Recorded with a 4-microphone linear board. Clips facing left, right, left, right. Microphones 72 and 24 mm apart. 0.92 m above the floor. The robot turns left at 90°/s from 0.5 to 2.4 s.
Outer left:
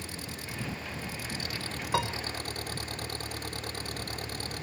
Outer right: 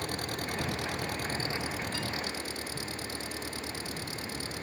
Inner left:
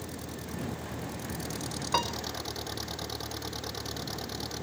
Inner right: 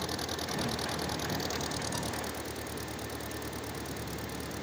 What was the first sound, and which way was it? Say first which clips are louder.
An engine running: outer right 6 dB, inner right 5 dB; 60° right.